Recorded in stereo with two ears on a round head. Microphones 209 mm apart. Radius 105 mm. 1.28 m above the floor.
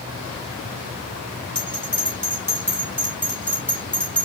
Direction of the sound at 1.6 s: 10° right (ahead or behind).